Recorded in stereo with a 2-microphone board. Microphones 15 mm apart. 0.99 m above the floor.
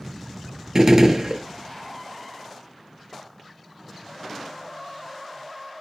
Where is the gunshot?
40° right (ahead or behind), 0.6 m.